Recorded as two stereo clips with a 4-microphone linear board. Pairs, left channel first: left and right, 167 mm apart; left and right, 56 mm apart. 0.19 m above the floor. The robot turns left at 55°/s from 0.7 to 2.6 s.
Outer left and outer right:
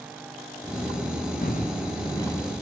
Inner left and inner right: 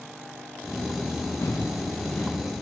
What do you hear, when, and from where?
1.4 s footsteps: 65° left (ahead or behind), 4 m; by 2.4 s 10° left (ahead or behind), 4 m